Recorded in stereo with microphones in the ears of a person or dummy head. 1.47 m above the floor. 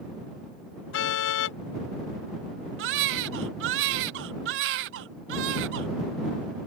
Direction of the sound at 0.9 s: 75° left (ahead or behind).